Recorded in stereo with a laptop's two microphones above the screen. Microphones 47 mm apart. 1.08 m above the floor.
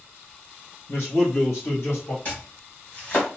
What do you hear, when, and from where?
0.9 s a man speaking: 55° left (ahead or behind), 0.8 m; by 2.1 s 80° left, 1.6 m
2.2 s chopping: 40° left (ahead or behind), 1.3 m